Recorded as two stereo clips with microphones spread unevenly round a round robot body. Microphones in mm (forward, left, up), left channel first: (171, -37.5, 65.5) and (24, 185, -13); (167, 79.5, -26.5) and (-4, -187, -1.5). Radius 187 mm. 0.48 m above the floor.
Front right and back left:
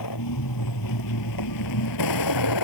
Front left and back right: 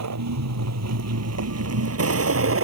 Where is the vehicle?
90° right; by 2.6 s 75° right.